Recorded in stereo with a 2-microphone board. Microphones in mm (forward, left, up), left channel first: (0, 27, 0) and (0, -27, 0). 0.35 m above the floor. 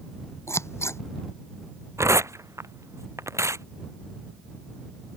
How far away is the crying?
No crying in this recording.